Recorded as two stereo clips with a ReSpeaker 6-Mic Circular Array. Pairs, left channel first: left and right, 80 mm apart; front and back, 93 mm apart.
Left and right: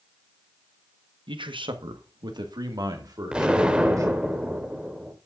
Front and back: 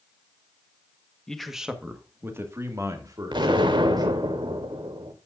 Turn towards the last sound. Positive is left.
turn(degrees=-165)